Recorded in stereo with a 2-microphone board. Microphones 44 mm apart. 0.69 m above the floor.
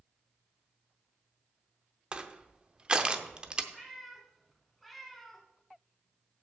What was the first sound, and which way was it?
Crushing, 20° right (ahead or behind).